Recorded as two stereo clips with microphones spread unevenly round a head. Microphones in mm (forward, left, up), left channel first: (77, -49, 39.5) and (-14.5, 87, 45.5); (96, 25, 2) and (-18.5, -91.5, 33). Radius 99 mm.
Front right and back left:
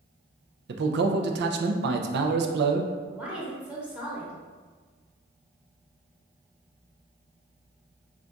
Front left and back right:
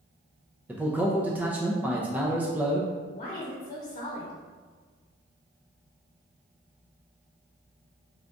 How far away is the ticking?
I don't hear ticking.